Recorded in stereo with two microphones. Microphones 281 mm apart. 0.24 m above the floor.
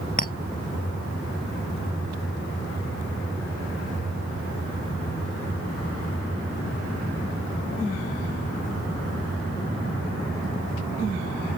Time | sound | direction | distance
0.2 | a clink | 30° left (ahead or behind) | ?